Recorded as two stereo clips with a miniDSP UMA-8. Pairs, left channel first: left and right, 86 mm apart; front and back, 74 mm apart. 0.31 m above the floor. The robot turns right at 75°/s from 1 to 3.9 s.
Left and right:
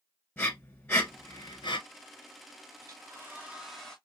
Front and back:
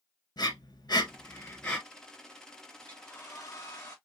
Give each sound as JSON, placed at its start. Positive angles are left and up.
{"t": 0.4, "sound": "breathing", "azimuth_deg": 25, "distance_m": 0.8}
{"t": 2.8, "sound": "a hair dryer", "azimuth_deg": -75, "distance_m": 1.1}